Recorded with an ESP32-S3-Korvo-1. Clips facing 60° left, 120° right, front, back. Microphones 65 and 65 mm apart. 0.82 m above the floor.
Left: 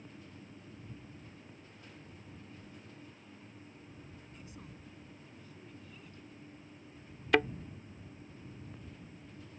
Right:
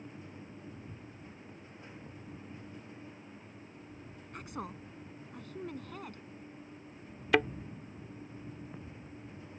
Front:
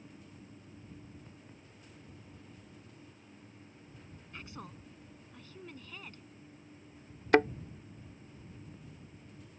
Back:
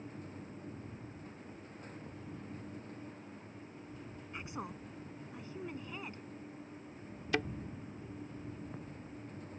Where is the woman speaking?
110° right.